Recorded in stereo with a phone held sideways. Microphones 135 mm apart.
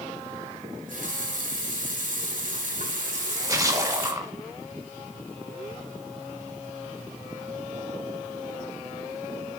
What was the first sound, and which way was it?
A running tap, 65° right (ahead or behind).